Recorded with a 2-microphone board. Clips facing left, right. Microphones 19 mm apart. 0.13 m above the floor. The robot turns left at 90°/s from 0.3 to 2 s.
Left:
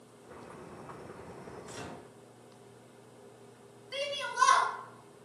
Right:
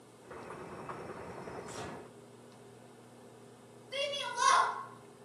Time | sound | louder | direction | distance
1.7 | a microwave | right 1 dB | 80° left | 1.7 m
3.9 | a shout | left 1 dB | 25° left (ahead or behind) | 1.1 m